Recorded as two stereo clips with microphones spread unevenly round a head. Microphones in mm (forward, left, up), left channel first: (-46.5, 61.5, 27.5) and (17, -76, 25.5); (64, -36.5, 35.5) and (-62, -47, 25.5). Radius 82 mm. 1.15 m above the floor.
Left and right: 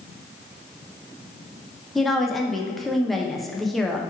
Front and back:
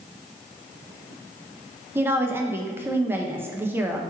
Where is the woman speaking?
155° right, 0.6 m.